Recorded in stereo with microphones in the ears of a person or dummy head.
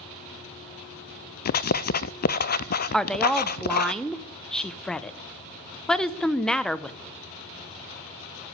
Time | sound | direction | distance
1.4 | writing | 50° left (ahead or behind) | 0.6 m
2.9 | a woman speaking | 5° left (ahead or behind) | 0.8 m